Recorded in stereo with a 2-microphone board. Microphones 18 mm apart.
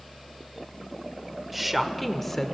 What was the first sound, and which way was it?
A woman speaking, 5° right (ahead or behind).